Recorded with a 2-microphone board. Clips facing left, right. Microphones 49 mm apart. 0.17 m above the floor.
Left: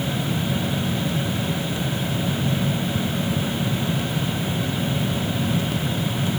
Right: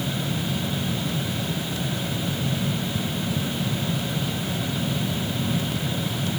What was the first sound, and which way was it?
Only background noise.